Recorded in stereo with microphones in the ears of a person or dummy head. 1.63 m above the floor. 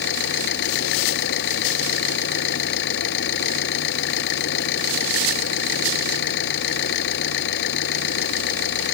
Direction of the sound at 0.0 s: 70° left (ahead or behind).